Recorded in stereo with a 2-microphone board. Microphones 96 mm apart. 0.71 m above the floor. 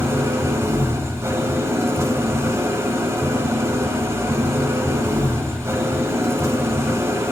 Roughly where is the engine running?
Right.